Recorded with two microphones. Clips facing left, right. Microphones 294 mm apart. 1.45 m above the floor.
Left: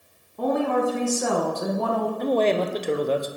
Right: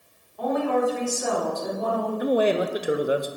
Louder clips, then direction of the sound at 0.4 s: Left 1 dB; 50° left (ahead or behind).